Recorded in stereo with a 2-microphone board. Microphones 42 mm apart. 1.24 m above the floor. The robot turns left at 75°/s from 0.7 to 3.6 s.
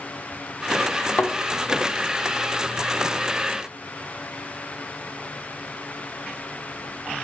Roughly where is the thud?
Left.